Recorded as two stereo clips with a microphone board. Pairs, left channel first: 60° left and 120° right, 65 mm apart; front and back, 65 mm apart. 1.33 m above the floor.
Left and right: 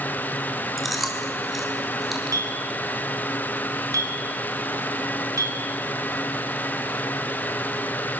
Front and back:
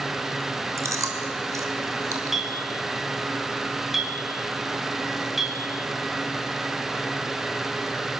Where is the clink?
90° right, 4.5 m.